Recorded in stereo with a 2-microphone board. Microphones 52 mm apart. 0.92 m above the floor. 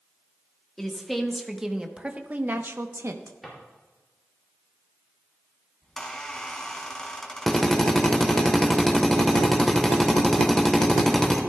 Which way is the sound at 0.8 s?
5° left (ahead or behind).